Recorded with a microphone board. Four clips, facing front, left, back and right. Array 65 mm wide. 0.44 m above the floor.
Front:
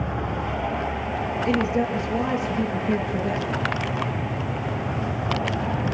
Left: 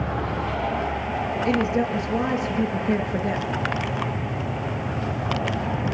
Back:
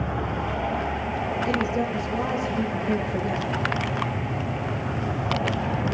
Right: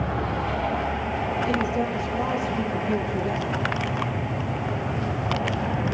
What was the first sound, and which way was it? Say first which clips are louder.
A woman speaking: left 5 dB, front 4 dB; 90° left.